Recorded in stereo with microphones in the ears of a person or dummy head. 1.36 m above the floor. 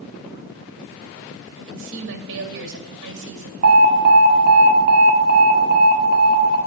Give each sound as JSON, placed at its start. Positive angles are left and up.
{"t": 1.6, "sound": "a woman speaking", "side_deg": -70, "distance_m": 2.0}
{"t": 3.6, "sound": "an alarm", "side_deg": -50, "distance_m": 1.7}